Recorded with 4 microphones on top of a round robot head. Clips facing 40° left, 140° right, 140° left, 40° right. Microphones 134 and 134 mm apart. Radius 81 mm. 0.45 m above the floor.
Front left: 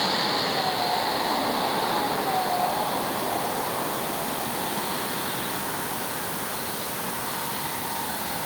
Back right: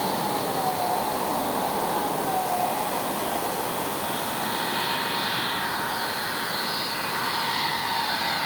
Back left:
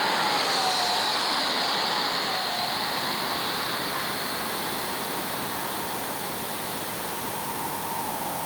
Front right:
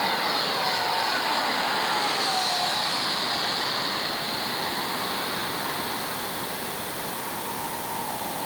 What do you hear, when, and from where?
Only background noise.